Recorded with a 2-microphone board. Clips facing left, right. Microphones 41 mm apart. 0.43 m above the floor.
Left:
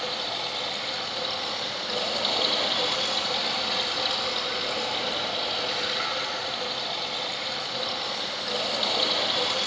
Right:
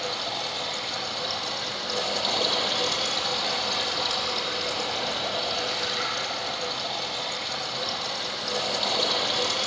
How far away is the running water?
About 5 m.